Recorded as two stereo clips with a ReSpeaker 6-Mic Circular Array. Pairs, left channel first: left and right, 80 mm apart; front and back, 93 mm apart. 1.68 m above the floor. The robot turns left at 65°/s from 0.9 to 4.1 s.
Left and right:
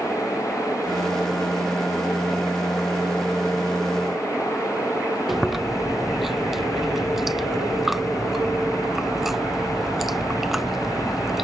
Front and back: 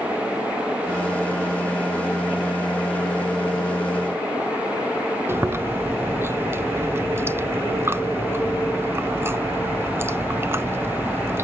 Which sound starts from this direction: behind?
Chewing, at 5.3 s.